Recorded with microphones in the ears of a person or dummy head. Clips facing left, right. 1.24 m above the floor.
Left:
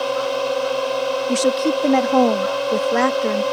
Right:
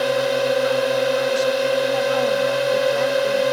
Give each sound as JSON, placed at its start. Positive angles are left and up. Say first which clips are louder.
{"t": 0.0, "sound": "a drone", "louder": "right 2 dB", "side_deg": -15}
{"t": 1.3, "sound": "a woman speaking", "louder": "left 1 dB", "side_deg": 80}